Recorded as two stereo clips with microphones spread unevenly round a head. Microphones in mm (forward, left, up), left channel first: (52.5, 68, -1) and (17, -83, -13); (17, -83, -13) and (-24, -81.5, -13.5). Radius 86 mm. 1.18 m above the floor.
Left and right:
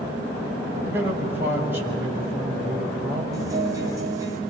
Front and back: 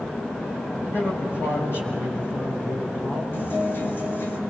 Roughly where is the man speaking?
Ahead right.